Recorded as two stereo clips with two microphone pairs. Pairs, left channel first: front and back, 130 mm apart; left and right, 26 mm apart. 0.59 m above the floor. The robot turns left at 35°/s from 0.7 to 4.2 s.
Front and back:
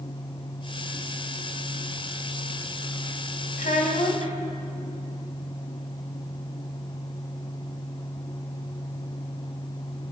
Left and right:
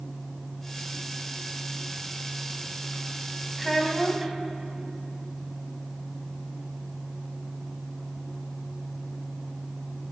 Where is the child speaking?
Straight ahead, 2 m; by 4.3 s 20° right, 2 m.